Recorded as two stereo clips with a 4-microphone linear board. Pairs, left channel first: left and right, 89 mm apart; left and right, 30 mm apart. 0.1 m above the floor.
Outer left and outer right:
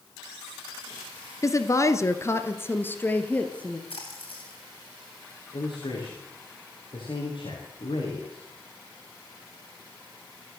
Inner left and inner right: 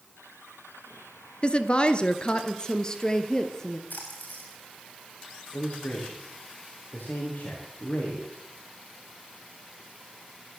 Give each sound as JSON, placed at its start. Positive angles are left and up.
{"t": 1.4, "sound": "a woman speaking", "side_deg": 35, "distance_m": 1.6}
{"t": 3.9, "sound": "a splash", "side_deg": 85, "distance_m": 7.5}
{"t": 5.5, "sound": "a man speaking", "side_deg": 60, "distance_m": 7.5}